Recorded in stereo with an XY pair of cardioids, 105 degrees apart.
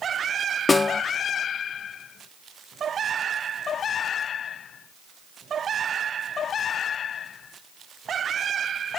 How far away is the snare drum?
About 0.5 m.